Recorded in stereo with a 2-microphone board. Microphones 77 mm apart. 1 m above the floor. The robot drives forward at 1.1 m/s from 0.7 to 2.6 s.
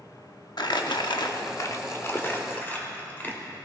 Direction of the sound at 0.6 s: 65° left (ahead or behind).